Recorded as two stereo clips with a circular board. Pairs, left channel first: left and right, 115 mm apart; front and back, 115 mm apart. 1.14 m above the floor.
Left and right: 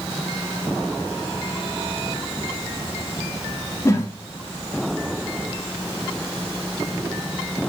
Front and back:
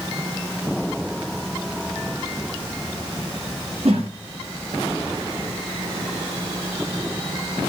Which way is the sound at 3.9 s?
155° left.